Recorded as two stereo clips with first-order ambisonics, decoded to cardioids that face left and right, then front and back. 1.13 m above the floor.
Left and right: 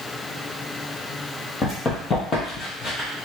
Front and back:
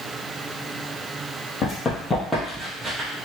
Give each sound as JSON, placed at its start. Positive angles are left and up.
{"t": 1.6, "sound": "running footsteps", "azimuth_deg": 40, "distance_m": 1.4}